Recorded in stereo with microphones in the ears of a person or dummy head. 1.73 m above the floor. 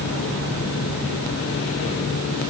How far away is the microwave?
No microwave in this recording.